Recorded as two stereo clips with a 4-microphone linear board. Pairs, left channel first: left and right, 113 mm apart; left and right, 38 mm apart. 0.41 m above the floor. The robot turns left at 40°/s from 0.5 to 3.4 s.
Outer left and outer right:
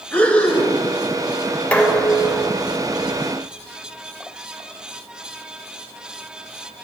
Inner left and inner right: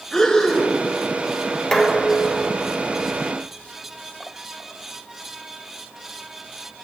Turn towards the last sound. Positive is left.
turn(degrees=-55)